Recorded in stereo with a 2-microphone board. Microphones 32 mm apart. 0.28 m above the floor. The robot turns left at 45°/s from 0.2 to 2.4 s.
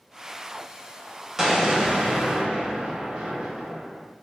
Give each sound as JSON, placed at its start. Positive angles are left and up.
{"t": 1.4, "sound": "an explosion", "side_deg": -10, "distance_m": 0.6}